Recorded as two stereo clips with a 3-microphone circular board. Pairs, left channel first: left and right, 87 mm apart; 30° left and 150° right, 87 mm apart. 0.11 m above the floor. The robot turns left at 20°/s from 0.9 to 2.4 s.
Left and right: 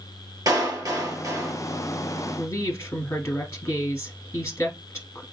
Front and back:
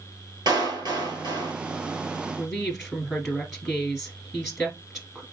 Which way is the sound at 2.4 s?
125° left.